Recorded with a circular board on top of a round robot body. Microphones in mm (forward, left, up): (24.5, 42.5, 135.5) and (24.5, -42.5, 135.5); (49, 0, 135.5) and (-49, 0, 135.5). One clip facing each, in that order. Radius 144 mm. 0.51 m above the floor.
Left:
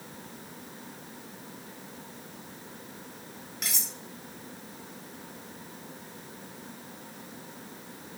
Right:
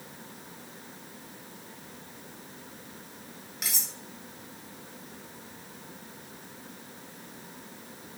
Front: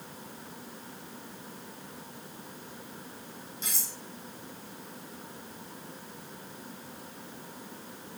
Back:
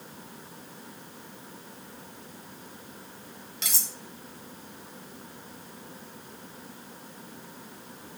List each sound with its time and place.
3.6 s cutlery clinking: 175° right, 1.1 m